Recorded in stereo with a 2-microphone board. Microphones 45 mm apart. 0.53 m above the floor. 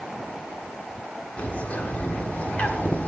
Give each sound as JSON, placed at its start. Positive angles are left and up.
{"t": 1.4, "sound": "a bird", "side_deg": 40, "distance_m": 1.5}